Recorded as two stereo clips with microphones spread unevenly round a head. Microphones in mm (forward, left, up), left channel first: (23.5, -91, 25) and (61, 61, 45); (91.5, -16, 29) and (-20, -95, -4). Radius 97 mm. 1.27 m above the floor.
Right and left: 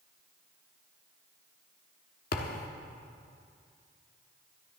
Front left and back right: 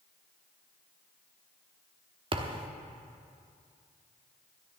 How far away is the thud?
About 1.1 m.